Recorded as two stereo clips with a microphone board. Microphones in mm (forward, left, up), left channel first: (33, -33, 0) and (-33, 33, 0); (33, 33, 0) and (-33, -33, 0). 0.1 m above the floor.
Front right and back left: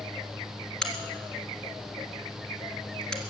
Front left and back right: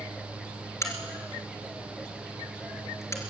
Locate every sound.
0.8 s a crack: 30° left, 2.0 m